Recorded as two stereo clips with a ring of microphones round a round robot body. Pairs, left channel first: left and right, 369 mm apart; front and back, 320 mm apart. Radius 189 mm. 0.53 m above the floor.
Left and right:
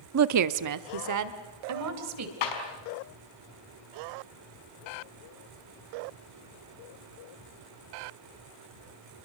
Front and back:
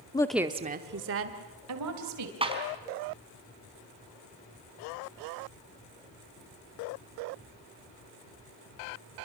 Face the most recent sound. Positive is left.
turn(degrees=105)